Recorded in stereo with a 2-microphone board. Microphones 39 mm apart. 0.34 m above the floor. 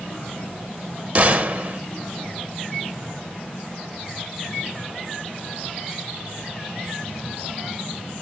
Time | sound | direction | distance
1.1 | a gunshot | 40° right (ahead or behind) | 0.7 m